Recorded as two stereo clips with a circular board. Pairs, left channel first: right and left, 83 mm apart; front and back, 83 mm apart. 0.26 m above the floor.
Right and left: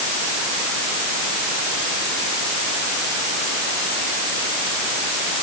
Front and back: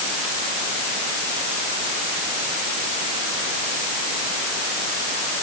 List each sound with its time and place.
Only background noise.